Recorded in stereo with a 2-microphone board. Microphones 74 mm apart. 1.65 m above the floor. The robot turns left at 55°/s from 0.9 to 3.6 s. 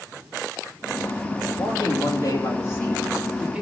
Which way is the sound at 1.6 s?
100° left.